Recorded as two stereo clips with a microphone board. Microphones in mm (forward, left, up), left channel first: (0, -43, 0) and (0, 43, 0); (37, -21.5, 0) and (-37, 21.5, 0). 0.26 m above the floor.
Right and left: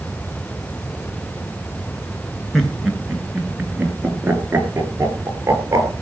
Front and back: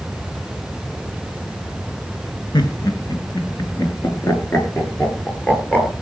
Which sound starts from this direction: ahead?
Laughter, at 2.5 s.